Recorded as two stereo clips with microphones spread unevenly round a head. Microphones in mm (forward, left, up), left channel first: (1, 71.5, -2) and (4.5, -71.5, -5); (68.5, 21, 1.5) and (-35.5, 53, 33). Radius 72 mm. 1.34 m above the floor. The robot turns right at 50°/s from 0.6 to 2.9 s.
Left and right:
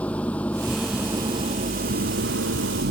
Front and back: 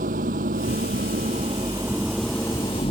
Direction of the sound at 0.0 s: 170° left.